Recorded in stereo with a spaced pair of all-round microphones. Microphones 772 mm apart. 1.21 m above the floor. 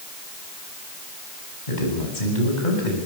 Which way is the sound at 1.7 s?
70° left (ahead or behind).